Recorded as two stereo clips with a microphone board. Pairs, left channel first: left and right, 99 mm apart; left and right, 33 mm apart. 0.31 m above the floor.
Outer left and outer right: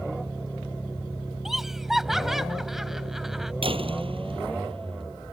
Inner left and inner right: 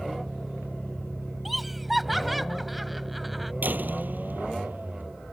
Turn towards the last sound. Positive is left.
turn(degrees=-70)  # may be behind; listen again after turning